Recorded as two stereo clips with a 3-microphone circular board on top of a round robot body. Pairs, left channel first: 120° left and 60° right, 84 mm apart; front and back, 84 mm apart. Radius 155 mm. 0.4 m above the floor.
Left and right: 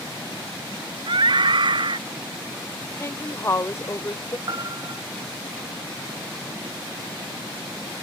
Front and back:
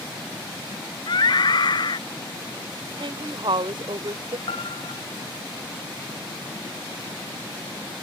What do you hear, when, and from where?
1.1 s a scream: 35° right
3.0 s a woman speaking: 175° left
4.5 s a piano: 15° right